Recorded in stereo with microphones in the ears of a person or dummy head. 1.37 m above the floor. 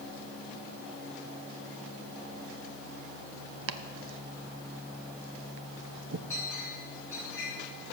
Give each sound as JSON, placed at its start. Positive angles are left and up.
{"t": 3.7, "sound": "chopping", "side_deg": -65, "distance_m": 0.7}
{"t": 6.3, "sound": "a clink", "side_deg": 15, "distance_m": 6.5}